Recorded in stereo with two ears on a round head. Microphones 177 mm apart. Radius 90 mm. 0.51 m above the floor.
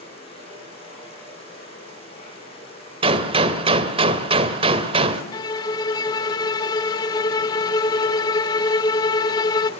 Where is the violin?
20° left (ahead or behind), 0.7 m.